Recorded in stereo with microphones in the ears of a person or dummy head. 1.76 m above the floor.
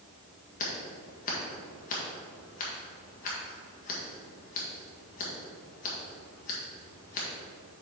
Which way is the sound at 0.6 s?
45° left (ahead or behind).